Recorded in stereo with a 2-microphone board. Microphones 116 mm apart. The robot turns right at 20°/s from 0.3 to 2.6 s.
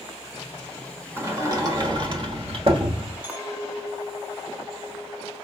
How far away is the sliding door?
About 1.2 m.